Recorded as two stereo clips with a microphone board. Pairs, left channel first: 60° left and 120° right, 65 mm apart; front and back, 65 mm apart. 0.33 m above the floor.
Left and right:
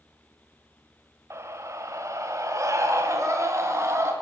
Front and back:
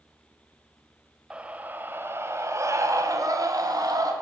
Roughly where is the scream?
Right.